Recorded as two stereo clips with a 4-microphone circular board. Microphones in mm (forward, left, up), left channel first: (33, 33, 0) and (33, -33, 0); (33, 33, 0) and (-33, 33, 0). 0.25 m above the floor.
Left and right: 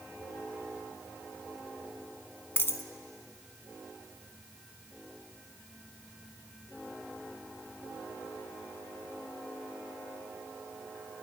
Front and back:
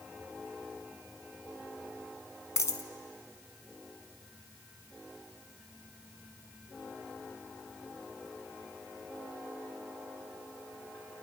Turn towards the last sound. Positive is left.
turn(degrees=35)